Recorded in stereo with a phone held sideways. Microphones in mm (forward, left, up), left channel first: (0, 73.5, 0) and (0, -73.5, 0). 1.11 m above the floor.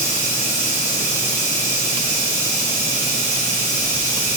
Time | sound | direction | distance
0.0 | running water | 15° right (ahead or behind) | 1.5 m